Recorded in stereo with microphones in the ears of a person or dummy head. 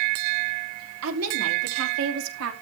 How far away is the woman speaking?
About 3.5 m.